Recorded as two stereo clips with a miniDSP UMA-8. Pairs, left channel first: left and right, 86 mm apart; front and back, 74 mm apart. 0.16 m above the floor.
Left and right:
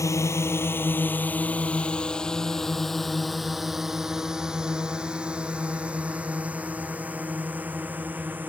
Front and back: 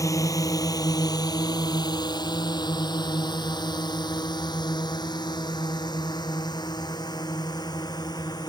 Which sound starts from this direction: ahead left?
A drone, at 0.0 s.